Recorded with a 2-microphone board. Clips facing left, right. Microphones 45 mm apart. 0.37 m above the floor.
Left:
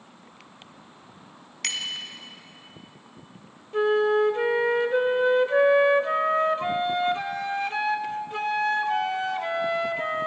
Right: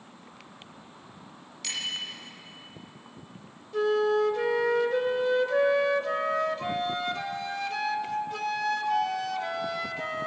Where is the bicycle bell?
75° left (ahead or behind), 2.5 m.